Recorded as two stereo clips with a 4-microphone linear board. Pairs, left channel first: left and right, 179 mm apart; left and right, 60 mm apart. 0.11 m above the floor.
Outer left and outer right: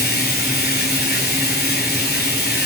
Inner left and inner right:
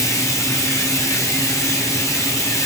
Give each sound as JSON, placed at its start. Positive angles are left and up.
{"t": 0.0, "sound": "running water", "side_deg": 65, "distance_m": 3.0}